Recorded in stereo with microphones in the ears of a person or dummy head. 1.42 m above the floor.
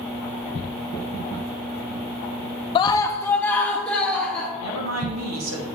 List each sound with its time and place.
2.8 s a scream: 25° left (ahead or behind), 0.5 m; by 4.5 s 5° left (ahead or behind), 1.9 m
4.6 s a woman speaking: 80° right, 1.6 m